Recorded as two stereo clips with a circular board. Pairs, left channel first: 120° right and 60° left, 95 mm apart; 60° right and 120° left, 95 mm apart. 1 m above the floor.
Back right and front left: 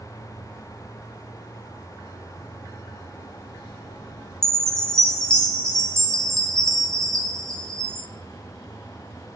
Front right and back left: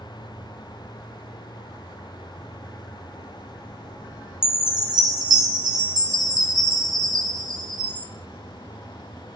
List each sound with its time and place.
4.4 s a chime: 160° left, 1.6 m